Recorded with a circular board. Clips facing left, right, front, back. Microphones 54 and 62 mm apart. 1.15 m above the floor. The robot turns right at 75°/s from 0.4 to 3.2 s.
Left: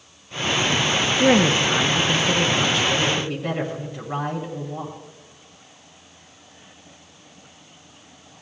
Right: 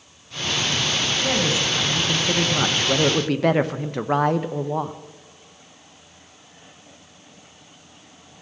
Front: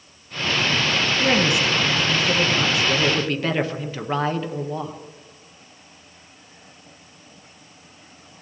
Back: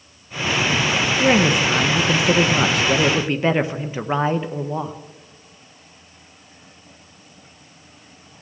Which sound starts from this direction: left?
A woman speaking, at 1.2 s.